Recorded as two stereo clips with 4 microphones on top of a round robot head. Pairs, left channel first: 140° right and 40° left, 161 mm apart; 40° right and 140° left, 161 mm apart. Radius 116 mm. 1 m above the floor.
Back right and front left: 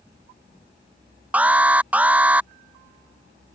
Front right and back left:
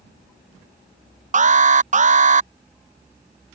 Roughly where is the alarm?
Behind left.